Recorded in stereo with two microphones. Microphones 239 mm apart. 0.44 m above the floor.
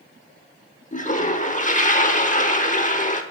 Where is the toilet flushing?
30° left (ahead or behind), 0.9 m.